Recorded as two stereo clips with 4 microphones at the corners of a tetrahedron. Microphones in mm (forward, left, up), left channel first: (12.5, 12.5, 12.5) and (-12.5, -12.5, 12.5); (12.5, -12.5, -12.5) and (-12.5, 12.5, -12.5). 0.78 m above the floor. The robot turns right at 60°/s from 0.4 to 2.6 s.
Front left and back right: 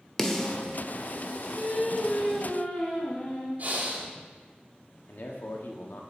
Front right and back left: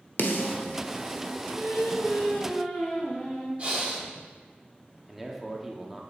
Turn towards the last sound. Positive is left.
turn(degrees=50)